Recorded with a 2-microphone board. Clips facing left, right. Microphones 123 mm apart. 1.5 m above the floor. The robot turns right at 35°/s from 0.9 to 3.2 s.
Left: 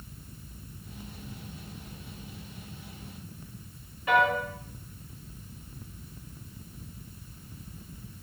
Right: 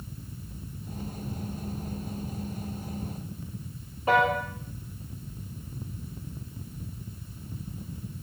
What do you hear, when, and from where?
4.1 s a piano: 35° right (ahead or behind), 0.6 m